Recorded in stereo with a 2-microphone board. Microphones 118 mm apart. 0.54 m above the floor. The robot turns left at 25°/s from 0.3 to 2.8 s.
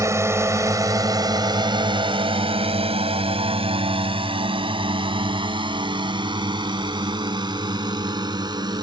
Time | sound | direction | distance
0.0 | a drone | 25° right (ahead or behind) | ?